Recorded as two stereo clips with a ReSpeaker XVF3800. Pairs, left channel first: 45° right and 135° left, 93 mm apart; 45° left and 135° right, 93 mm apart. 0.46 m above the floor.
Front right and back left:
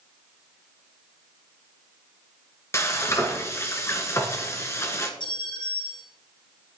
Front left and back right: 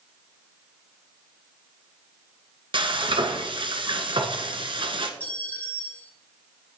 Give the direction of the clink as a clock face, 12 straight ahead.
1 o'clock.